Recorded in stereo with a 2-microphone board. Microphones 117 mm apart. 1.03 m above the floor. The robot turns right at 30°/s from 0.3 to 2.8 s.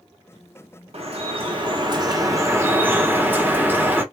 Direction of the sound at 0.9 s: 75° right.